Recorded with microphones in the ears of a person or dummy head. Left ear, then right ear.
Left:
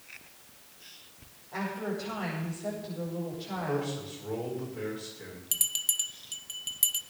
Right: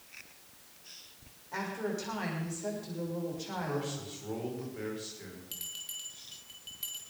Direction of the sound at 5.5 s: 25° left (ahead or behind).